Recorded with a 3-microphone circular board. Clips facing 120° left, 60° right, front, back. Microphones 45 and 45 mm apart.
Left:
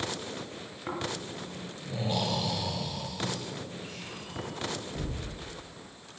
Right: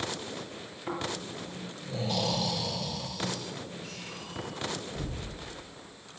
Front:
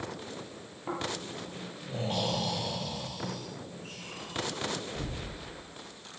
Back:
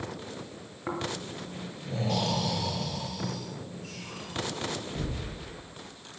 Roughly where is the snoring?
Behind.